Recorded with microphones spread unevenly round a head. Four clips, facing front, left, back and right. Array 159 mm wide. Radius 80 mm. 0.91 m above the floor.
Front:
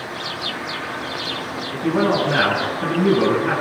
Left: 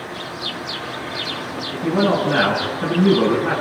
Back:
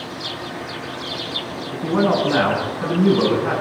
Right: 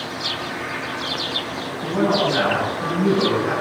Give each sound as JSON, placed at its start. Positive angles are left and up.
{"t": 1.7, "sound": "a man speaking", "azimuth_deg": 170, "distance_m": 10.0}